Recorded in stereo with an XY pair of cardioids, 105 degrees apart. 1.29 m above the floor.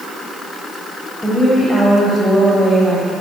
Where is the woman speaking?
15° left, 8.5 m.